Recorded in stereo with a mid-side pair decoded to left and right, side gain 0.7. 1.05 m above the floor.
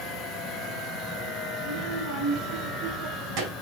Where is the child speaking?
65° right, 6 m.